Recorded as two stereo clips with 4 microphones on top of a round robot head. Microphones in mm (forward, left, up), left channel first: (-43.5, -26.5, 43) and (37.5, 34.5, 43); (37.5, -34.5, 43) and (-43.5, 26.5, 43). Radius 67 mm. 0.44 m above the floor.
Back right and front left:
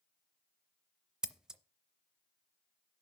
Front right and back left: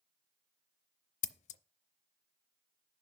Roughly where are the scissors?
Ahead right.